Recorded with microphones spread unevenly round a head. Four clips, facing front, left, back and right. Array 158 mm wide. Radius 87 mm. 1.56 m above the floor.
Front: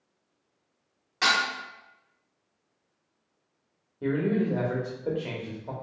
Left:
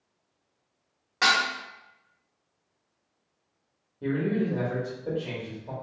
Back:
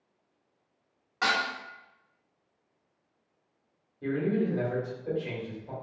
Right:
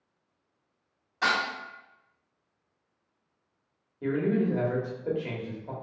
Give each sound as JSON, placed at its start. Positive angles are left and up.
{"t": 1.2, "sound": "dishes clattering", "azimuth_deg": 85, "distance_m": 1.8}
{"t": 4.0, "sound": "a man speaking", "azimuth_deg": -15, "distance_m": 1.0}